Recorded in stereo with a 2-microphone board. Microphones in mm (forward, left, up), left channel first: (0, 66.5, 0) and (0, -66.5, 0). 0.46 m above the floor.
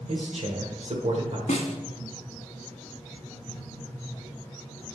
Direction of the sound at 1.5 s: 65° left (ahead or behind).